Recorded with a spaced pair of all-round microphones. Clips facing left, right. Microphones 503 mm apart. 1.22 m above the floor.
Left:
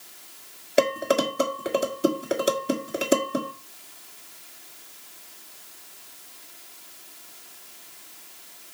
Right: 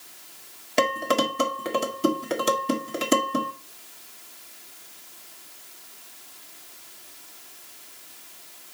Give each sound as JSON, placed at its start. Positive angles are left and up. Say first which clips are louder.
{"t": 0.8, "sound": "dishes clattering", "louder": "left 2 dB", "side_deg": -20, "distance_m": 1.3}